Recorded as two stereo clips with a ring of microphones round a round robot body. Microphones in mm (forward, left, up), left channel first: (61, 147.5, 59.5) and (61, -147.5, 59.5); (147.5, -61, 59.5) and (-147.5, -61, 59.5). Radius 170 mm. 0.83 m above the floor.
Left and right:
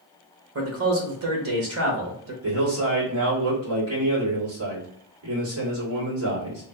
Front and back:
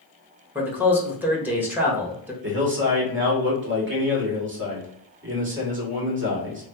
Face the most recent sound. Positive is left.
turn(degrees=-130)